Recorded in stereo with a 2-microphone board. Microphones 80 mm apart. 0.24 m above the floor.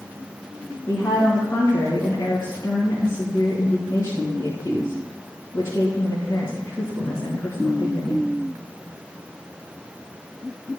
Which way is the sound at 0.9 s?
35° left (ahead or behind).